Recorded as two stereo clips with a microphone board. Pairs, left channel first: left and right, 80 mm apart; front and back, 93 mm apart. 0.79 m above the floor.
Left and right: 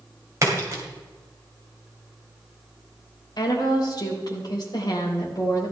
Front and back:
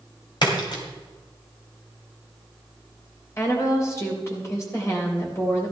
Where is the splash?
40° right, 2.5 m.